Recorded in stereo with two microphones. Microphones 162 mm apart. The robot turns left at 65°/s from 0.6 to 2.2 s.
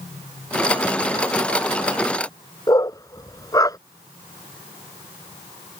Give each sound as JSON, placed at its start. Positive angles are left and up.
{"t": 2.7, "sound": "a dog barking", "side_deg": 20}